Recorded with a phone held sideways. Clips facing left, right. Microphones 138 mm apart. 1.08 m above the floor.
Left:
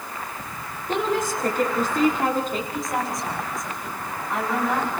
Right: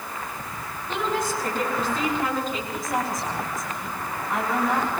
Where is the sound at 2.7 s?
Centre (ahead or behind), 8 m.